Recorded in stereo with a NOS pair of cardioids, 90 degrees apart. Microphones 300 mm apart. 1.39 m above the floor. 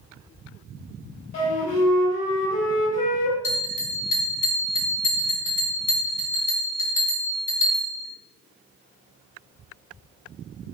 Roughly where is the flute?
Ahead left.